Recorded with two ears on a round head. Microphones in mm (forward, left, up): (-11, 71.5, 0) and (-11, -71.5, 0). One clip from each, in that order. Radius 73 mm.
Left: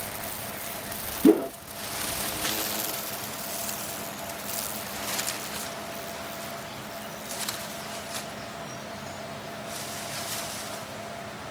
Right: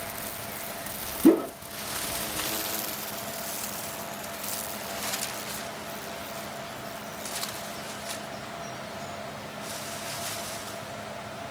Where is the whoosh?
10° right (ahead or behind), 2 m.